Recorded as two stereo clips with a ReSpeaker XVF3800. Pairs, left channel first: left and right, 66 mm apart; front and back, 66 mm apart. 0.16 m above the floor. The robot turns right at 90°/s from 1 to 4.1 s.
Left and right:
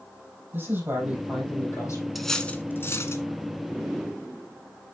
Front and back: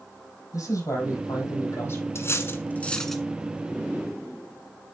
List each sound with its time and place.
0.5 s a man speaking: 35° right, 4.5 m; by 2.0 s 60° left, 4.5 m
2.1 s cutlery clinking: 5° right, 1.1 m; by 3.2 s 95° left, 1.1 m